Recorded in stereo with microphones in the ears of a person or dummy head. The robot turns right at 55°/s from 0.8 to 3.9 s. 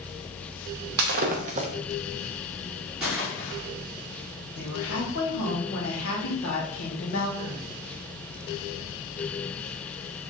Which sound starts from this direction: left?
A woman speaking, at 4.5 s.